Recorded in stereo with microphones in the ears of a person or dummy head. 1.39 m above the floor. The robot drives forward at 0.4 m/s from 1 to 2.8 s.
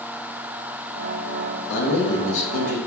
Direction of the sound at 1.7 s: 75° left (ahead or behind).